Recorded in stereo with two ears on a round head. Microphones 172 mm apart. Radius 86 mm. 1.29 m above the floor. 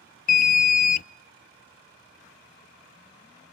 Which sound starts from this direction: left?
An alarm, at 0.3 s.